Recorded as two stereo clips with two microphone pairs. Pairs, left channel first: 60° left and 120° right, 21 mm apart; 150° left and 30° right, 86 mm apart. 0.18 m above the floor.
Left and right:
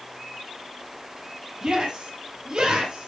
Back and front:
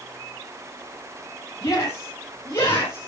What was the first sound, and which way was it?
A shout, 160° right.